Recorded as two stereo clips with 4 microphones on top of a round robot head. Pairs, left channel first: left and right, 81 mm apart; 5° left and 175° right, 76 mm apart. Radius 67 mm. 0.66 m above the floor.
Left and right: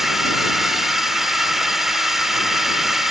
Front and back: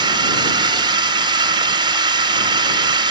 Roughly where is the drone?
Behind.